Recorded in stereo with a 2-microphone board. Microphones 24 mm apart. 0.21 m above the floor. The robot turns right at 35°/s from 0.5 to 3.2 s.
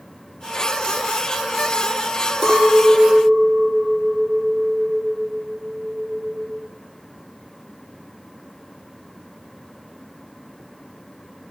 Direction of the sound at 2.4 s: 5° left (ahead or behind).